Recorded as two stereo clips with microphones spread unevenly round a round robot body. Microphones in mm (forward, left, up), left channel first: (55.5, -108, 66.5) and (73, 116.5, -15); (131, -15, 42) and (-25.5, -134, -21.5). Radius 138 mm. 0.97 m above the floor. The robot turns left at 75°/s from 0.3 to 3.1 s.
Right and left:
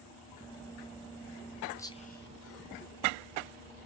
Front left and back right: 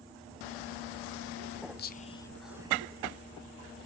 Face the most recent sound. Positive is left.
turn(degrees=-110)